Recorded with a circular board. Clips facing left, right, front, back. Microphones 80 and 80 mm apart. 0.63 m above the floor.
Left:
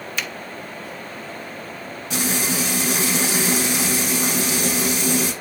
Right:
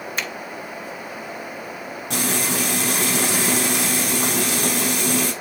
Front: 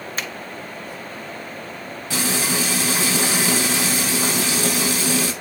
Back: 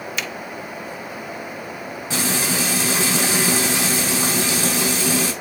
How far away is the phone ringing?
I don't hear a phone ringing.